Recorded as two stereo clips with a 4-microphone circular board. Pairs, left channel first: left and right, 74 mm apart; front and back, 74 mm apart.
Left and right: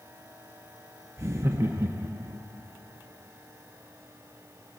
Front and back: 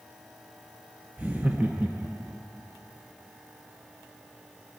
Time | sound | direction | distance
1.2 | laughter | 115° right | 0.5 m